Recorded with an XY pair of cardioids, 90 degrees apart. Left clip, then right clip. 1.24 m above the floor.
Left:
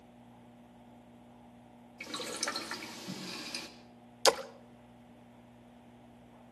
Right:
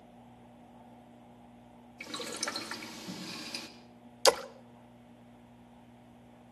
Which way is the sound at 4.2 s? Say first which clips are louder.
Right 2 dB; 15° right.